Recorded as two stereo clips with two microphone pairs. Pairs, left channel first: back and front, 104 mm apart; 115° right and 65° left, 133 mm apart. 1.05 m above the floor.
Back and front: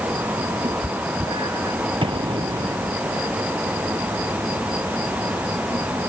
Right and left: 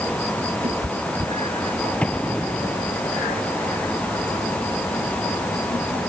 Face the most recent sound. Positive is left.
turn(degrees=-35)